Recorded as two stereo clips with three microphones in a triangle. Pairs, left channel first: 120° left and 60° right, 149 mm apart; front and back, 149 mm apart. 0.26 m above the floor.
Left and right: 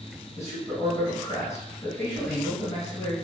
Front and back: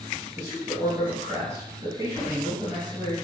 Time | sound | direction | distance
0.4 | a man speaking | 155° left | 1.3 m